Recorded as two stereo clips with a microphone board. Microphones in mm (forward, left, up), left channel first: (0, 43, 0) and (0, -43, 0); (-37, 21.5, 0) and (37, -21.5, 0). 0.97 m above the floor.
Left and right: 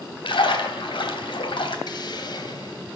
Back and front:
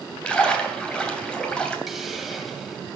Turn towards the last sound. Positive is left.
turn(degrees=60)